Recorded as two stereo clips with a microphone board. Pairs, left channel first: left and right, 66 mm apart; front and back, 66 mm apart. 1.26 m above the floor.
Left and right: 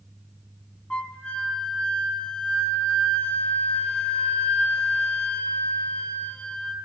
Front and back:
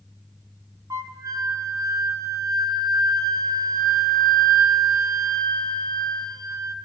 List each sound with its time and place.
0.9 s a flute: 160° left, 0.7 m